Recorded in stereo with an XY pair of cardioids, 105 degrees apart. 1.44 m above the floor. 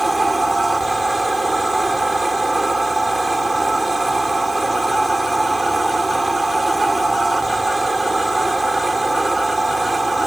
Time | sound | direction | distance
0.0 | a machine running | 20° right | ?